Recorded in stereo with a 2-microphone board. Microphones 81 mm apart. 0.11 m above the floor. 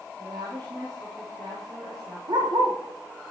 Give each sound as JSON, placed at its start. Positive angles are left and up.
{"t": 0.2, "sound": "a woman speaking", "side_deg": -65, "distance_m": 4.0}
{"t": 2.3, "sound": "a dog barking", "side_deg": -75, "distance_m": 3.0}